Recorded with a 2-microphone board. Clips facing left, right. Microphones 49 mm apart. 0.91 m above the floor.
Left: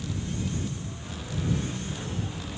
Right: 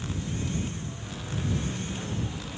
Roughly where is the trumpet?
I don't hear a trumpet.